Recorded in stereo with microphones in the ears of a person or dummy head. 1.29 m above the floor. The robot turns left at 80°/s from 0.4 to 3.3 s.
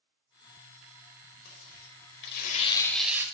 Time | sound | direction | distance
1.4 | tearing paper | 125° left | 4.5 m